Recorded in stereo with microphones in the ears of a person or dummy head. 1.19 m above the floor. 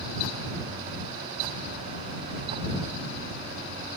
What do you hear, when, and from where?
Only background noise.